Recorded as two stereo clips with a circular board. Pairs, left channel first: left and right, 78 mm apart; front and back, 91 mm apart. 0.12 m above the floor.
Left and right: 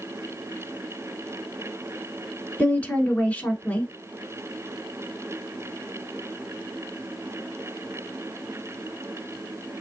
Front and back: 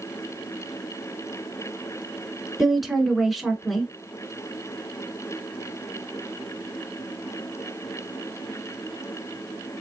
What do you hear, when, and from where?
2.6 s a woman speaking: 95° left, 1.2 m